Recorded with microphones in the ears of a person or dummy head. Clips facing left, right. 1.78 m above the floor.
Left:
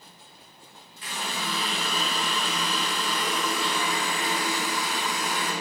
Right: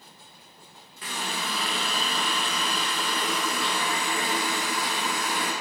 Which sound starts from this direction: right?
A running tap, at 1.0 s.